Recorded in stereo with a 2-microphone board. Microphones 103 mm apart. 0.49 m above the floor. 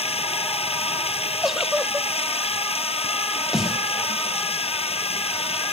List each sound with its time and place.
0.0 s running water: 75° left (ahead or behind)
1.4 s a giggle: 5° right (ahead or behind)
3.5 s a snare drum: centre (ahead or behind)